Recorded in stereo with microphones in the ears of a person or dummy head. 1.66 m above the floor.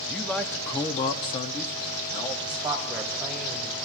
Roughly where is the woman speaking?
Centre.